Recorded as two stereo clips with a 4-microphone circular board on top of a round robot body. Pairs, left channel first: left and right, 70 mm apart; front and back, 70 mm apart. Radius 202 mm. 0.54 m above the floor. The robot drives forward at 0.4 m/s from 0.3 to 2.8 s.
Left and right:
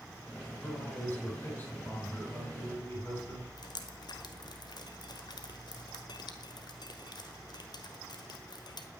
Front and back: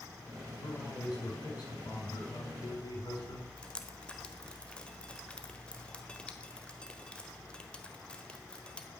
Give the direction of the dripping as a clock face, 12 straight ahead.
9 o'clock.